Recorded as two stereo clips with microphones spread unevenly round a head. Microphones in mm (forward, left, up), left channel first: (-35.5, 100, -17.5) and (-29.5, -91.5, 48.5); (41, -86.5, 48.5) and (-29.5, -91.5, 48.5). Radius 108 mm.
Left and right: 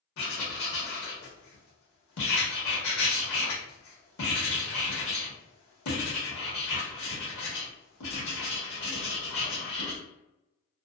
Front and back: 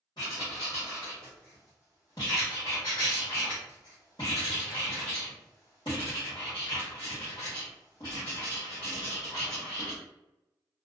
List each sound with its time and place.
0.2 s writing: 60° left, 1.1 m